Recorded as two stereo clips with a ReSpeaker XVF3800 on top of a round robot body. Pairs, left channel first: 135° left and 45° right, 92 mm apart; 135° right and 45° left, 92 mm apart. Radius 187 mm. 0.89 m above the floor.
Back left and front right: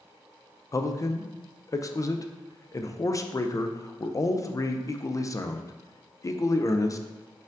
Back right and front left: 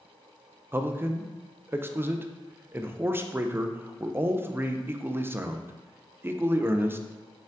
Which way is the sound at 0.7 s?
100° left.